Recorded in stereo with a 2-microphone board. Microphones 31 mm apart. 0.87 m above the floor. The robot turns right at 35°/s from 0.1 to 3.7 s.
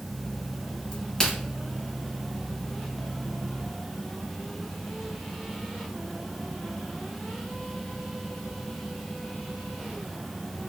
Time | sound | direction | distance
0.9 | a crack | 30° left (ahead or behind) | 1.9 m